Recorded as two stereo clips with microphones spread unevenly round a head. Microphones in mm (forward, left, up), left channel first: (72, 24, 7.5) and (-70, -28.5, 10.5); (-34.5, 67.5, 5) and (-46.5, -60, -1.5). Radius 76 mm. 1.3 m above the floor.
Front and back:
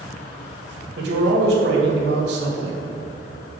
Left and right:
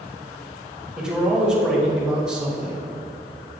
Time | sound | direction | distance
1.0 | a man speaking | straight behind | 2 m